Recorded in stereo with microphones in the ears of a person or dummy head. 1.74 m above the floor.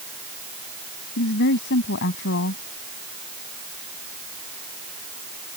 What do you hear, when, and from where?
1.2 s a woman speaking: 65° left (ahead or behind)